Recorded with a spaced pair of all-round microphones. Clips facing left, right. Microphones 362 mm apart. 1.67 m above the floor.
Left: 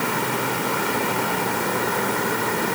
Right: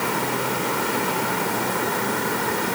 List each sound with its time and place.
Only background noise.